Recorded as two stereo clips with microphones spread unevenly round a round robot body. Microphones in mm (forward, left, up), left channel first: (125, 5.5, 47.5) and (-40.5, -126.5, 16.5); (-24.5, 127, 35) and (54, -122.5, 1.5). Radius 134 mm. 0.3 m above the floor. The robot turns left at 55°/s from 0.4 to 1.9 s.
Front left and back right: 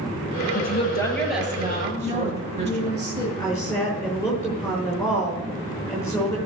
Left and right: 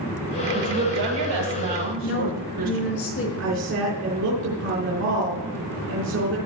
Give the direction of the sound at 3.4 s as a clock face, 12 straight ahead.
1 o'clock.